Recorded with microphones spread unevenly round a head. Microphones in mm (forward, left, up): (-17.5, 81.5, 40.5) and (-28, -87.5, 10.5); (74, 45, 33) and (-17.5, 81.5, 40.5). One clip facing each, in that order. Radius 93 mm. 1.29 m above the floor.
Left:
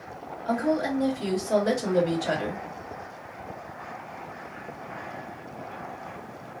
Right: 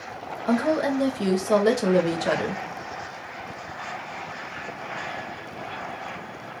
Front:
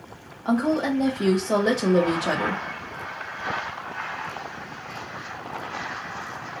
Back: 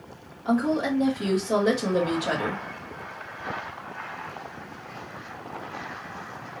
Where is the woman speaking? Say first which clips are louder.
Right 3 dB, front 1 dB; 90° right, 1.6 m.